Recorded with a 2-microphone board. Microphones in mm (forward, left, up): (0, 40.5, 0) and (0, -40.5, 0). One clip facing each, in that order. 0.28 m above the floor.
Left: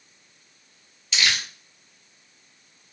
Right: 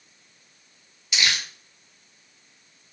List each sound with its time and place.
1.1 s crumpling: 10° right (ahead or behind), 1.7 m